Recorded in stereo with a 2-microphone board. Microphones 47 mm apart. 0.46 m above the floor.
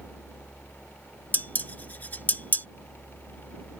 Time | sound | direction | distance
1.3 | dishes clattering | 40° left (ahead or behind) | ?